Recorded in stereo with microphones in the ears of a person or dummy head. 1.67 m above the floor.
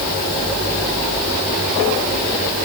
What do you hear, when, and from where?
Only background noise.